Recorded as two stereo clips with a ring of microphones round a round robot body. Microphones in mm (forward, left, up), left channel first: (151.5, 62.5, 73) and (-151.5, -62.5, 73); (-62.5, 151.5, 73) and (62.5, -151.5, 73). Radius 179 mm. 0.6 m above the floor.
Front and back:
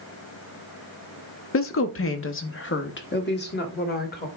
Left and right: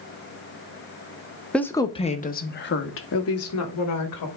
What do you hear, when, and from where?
1.5 s a woman speaking: 25° left, 0.9 m; by 4.3 s 85° left, 1.8 m